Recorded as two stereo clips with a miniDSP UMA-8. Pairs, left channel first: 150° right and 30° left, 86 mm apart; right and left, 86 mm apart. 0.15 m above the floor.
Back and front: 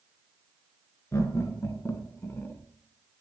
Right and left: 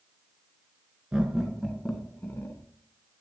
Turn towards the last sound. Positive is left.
turn(degrees=-105)